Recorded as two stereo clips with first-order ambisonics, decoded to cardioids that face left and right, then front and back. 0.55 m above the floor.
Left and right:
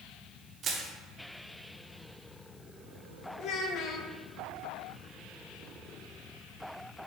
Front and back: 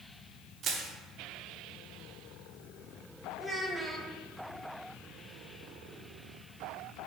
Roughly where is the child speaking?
Left.